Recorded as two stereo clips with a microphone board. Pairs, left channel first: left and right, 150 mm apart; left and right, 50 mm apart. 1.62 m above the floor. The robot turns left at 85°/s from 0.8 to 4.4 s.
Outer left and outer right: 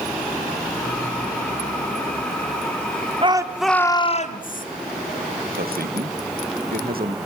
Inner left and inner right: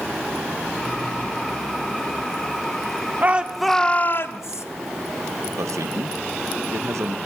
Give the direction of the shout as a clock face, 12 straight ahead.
5 o'clock.